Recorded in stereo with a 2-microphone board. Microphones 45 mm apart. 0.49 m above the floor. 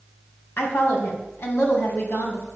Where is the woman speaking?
60° left (ahead or behind), 4 m.